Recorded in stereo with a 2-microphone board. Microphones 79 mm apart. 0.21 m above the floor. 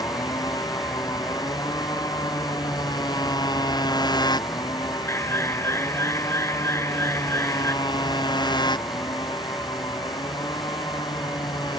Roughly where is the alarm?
Left.